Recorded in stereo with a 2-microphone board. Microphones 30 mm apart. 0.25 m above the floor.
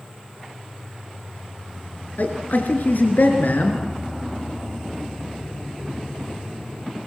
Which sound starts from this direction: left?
A man speaking, at 2.2 s.